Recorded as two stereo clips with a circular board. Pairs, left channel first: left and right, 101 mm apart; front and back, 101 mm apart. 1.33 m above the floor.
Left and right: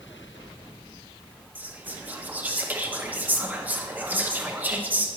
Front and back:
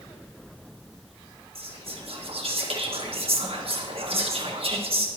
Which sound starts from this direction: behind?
Whispering, at 1.6 s.